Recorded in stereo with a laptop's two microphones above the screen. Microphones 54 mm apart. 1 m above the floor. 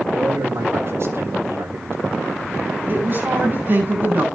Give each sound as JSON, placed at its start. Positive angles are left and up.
{"t": 0.1, "sound": "a man speaking", "side_deg": -60, "distance_m": 5.5}
{"t": 2.9, "sound": "a woman speaking", "side_deg": -40, "distance_m": 10.0}